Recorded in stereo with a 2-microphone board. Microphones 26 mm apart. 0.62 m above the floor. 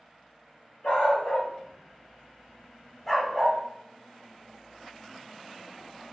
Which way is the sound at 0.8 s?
55° left (ahead or behind).